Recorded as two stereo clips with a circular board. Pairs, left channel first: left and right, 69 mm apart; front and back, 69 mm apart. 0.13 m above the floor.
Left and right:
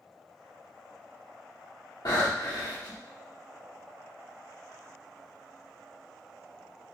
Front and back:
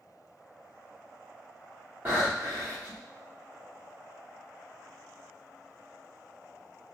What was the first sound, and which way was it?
Breathing, 115° left.